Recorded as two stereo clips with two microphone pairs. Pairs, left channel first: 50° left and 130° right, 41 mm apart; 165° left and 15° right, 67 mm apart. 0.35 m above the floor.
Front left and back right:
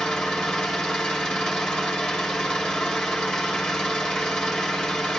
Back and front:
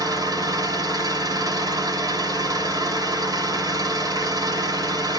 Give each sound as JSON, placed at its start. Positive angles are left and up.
{"t": 0.0, "sound": "an engine running", "azimuth_deg": -35, "distance_m": 2.0}